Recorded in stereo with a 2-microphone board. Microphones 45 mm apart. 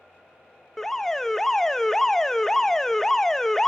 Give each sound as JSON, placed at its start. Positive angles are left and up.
{"t": 0.8, "sound": "an alarm", "side_deg": 10, "distance_m": 0.6}